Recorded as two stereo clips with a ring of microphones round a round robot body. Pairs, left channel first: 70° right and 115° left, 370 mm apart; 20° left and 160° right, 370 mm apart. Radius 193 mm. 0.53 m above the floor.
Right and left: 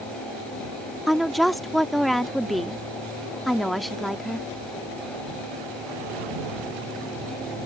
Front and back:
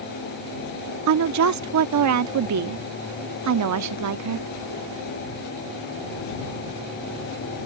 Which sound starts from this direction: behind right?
A woman speaking, at 1.1 s.